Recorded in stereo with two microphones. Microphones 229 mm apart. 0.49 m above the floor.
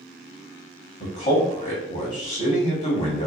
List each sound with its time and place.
1.0 s a man speaking: 35° left (ahead or behind), 1.1 m